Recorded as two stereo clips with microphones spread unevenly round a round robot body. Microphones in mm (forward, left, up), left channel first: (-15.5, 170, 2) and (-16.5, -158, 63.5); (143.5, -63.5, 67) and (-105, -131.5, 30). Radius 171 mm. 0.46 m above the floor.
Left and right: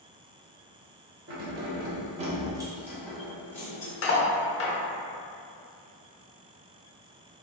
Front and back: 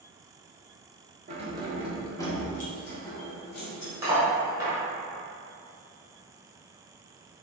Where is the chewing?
No chewing in this recording.